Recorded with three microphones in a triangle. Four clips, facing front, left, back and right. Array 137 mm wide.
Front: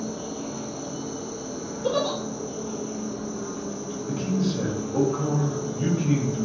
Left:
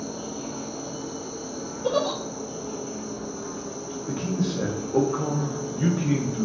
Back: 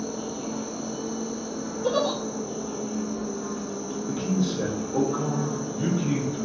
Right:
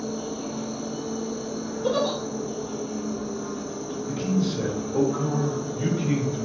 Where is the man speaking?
100° left, 0.7 m.